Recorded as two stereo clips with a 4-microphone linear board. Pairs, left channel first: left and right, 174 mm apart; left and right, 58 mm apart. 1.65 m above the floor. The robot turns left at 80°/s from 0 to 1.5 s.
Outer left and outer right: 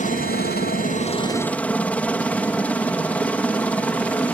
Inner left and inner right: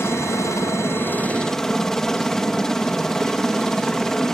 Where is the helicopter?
130° left; by 4.3 s 10° left.